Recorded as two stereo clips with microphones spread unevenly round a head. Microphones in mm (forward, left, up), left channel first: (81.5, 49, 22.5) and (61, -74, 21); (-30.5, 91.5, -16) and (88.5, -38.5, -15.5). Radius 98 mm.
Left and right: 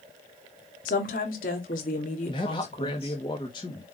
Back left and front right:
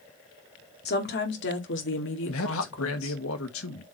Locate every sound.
0.8 s a woman speaking: 105° left, 2.5 m; by 3.2 s 145° left, 2.5 m
2.3 s a man speaking: 145° left, 1.7 m